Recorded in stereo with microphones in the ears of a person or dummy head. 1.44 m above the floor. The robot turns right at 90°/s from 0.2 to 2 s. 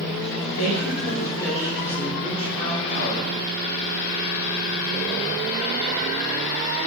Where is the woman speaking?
90° left, 1.8 m; by 3.3 s 140° right, 1.8 m.